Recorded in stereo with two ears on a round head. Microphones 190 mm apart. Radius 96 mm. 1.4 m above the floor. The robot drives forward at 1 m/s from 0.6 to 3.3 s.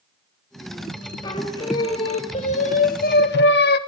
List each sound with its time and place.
1.2 s singing: 20° left (ahead or behind), 3 m; by 3.8 s 50° left (ahead or behind), 1.3 m